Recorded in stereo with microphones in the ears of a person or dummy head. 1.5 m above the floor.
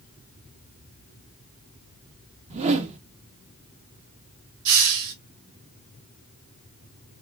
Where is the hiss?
80° right, 1.4 m.